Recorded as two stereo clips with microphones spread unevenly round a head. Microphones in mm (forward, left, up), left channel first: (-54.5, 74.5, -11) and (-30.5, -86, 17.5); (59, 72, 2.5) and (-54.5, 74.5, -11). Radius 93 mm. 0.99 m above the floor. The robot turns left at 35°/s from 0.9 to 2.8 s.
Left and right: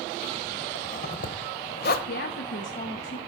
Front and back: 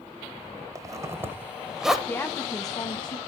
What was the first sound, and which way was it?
A zipper, 125° left.